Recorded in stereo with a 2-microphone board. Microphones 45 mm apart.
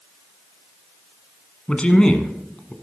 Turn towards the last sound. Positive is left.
turn(degrees=25)  # may be behind; listen again after turning